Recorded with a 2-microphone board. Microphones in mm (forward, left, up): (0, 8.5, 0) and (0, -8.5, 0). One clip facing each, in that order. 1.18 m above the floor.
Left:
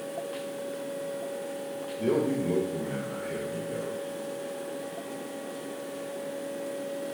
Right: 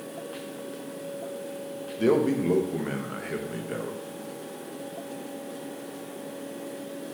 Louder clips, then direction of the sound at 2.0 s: Right 4 dB; 50° right (ahead or behind).